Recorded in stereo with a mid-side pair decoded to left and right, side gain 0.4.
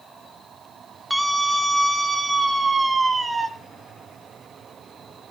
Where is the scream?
Straight ahead, 3.5 m; by 3.5 s 30° right, 5 m.